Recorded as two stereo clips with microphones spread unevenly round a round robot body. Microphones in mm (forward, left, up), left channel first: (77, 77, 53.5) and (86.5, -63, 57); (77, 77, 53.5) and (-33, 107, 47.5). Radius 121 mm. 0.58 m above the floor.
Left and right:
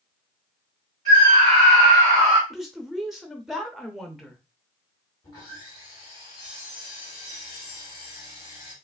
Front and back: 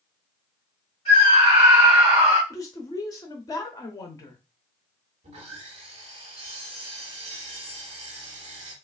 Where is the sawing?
170° left, 0.7 m.